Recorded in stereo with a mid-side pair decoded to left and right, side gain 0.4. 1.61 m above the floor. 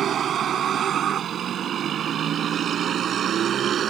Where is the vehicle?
65° right.